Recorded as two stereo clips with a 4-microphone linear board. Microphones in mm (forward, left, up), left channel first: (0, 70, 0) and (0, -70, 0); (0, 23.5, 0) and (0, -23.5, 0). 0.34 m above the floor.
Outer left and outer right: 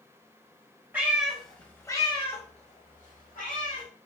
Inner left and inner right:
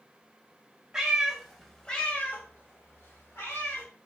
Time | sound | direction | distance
0.9 | a cat meowing | 15° right (ahead or behind) | 0.8 m